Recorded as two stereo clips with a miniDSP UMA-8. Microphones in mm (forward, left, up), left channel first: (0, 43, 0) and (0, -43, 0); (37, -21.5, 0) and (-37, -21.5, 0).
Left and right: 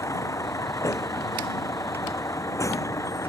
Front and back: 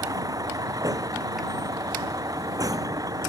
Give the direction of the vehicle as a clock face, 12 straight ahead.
7 o'clock.